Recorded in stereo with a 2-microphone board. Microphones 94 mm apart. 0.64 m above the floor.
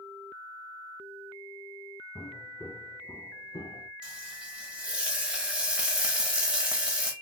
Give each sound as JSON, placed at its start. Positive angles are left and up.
{"t": 2.1, "sound": "footsteps", "side_deg": 15, "distance_m": 1.2}
{"t": 4.0, "sound": "frying", "side_deg": -10, "distance_m": 0.8}